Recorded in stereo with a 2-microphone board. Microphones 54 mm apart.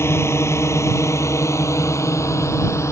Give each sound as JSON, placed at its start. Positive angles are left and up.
{"t": 0.0, "sound": "a drone", "side_deg": 55}